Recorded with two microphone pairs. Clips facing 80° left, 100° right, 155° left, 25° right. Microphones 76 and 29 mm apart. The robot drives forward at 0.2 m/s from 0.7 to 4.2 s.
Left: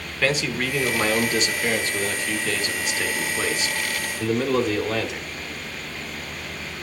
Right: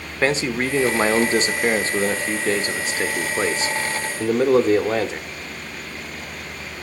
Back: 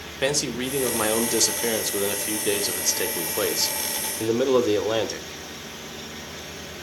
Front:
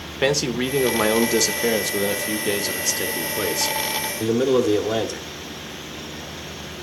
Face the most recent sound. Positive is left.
turn(degrees=-135)